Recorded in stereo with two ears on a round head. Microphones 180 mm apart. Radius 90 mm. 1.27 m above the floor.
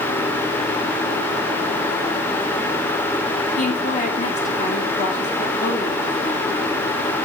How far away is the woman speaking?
About 2.5 m.